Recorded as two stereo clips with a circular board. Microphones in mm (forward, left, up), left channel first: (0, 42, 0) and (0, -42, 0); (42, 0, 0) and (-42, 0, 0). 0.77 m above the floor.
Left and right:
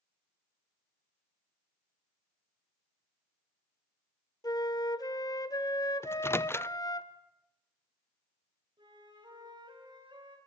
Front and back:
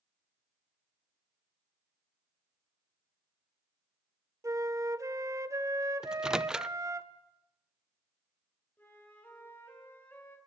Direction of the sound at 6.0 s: 110° left.